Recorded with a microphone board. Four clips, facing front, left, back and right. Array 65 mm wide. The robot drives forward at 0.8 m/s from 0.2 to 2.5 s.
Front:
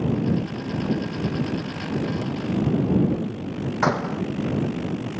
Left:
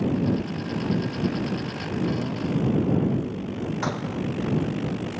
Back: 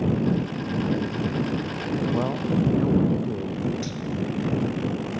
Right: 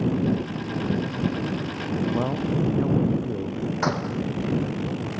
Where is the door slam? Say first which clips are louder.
Right 5 dB, front 8 dB; 15° right.